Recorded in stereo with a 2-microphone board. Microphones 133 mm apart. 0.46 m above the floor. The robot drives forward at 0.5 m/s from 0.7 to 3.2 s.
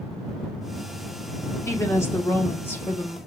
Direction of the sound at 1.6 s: 20° left (ahead or behind).